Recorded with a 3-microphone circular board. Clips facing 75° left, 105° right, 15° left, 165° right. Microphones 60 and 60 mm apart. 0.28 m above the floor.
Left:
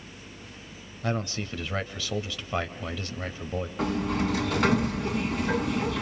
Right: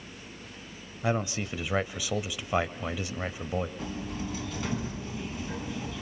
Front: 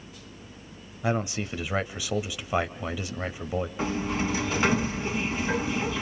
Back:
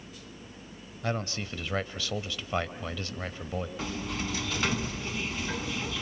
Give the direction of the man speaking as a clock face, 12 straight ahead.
1 o'clock.